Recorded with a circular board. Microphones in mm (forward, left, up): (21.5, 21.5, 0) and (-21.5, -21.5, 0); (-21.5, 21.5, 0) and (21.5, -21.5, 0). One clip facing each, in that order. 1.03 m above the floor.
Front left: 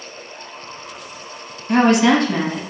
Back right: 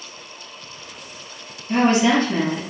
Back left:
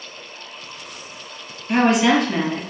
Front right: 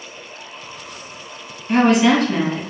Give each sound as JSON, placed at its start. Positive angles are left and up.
{"t": 1.7, "sound": "a woman speaking", "azimuth_deg": 50, "distance_m": 1.0}